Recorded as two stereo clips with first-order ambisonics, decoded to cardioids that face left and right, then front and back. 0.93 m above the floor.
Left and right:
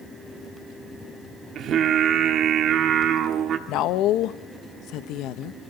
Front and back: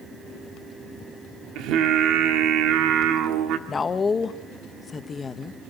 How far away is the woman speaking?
About 0.7 m.